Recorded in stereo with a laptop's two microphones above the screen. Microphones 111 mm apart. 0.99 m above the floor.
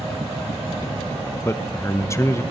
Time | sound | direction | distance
1.4 | a man speaking | 25° left (ahead or behind) | 0.7 m